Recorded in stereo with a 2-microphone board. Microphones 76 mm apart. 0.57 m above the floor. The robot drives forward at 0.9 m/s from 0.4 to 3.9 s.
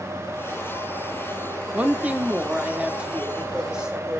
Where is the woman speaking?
20° right (ahead or behind), 1.0 m; by 4.2 s 10° right (ahead or behind), 2.5 m.